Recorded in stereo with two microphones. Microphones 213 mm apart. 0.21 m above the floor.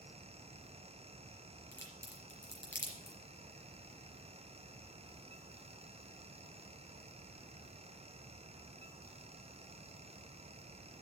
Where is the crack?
60° left (ahead or behind), 4 m.